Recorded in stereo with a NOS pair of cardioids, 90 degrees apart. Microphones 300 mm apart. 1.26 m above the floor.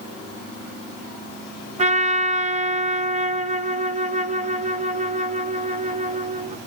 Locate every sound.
1.8 s a trumpet: 25° right, 0.8 m